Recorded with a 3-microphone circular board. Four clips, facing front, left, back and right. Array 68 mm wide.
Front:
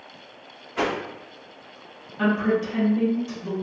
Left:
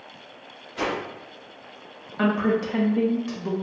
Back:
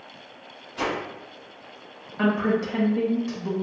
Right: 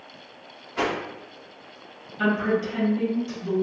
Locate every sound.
0.8 s a whoosh: 30° right, 0.7 m
2.2 s a woman speaking: 115° left, 1.1 m